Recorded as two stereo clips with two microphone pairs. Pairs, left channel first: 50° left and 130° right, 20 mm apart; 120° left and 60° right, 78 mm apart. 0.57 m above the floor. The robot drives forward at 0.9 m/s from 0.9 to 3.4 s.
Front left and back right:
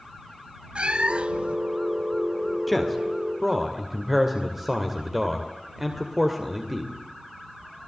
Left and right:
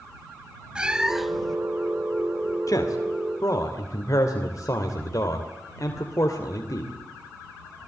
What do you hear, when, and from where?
0.8 s a cat meowing: 135° right, 0.8 m; by 1.6 s 155° right, 1.3 m
2.7 s a man speaking: 140° left, 2.0 m; by 6.9 s 150° left, 2.5 m